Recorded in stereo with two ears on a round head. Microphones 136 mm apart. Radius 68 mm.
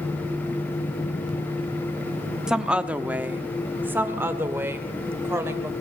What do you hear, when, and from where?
2.5 s a woman speaking: 5° right (ahead or behind), 1.1 m; by 5.7 s 15° right (ahead or behind), 3.5 m